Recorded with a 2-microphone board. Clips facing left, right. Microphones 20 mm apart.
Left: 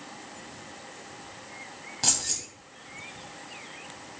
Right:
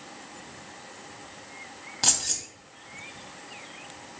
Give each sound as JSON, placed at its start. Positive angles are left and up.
{"t": 2.0, "sound": "keys jangling", "side_deg": -20, "distance_m": 0.9}